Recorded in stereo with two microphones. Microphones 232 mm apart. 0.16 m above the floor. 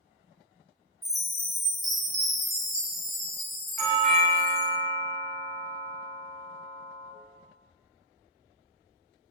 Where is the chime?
15° right (ahead or behind), 1.1 m.